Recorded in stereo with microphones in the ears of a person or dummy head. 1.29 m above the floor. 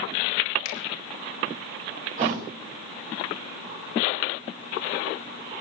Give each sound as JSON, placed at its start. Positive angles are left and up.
{"t": 0.7, "sound": "a finger snap", "side_deg": 85, "distance_m": 4.0}
{"t": 2.2, "sound": "a thud", "side_deg": -45, "distance_m": 8.0}